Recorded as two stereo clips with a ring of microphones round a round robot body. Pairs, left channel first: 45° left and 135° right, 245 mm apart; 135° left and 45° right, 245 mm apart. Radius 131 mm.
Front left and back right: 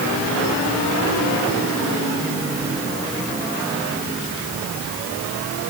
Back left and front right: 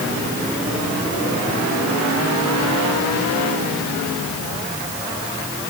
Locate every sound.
Only background noise.